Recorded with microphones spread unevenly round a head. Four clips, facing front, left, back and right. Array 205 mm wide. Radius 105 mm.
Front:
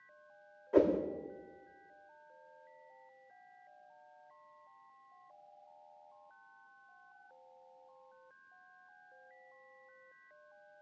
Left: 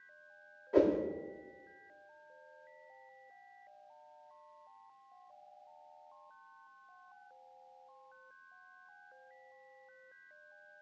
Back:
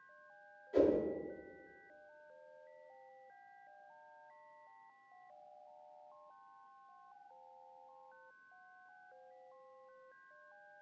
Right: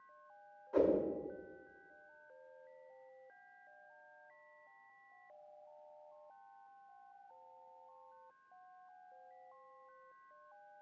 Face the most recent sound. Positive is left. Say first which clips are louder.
# left 3 dB, front 3 dB
turn(degrees=25)